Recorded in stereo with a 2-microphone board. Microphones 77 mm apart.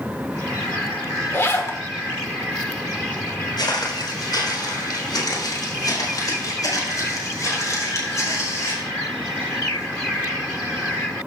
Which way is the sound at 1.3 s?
35° left (ahead or behind).